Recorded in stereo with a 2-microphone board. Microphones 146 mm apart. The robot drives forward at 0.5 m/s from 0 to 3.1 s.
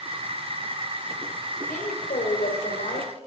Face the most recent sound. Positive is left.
turn(degrees=65)  # may be behind; listen again after turning